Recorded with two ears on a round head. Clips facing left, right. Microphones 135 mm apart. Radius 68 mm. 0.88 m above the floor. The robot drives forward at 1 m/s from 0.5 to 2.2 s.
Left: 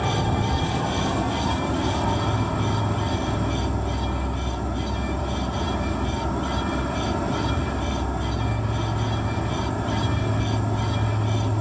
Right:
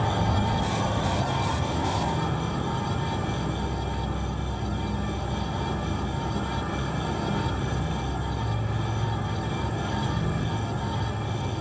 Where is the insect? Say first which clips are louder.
Left 2 dB; 45° left (ahead or behind), 3 m; by 11.6 s 70° left (ahead or behind), 2 m.